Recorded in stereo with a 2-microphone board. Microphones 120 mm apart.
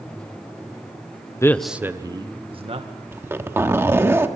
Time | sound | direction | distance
1.4 | a man speaking | 25° left (ahead or behind) | 0.8 m
3.1 | a zipper | 20° right (ahead or behind) | 1.3 m